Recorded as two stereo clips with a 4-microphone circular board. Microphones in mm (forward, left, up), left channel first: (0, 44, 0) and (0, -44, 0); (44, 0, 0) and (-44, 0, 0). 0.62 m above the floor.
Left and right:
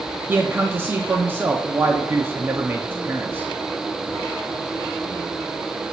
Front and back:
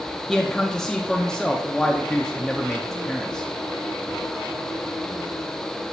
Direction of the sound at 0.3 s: 75° right.